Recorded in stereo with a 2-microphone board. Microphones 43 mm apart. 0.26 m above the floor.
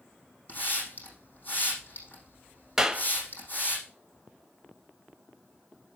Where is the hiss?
50° left (ahead or behind), 6 m.